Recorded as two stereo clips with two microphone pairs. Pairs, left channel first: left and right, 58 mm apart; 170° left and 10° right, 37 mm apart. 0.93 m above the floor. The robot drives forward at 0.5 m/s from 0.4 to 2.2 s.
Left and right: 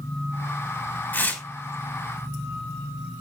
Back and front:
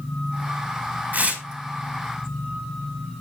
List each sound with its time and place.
1.1 s tearing paper: 30° left, 4.5 m; by 1.4 s 35° left, 4.5 m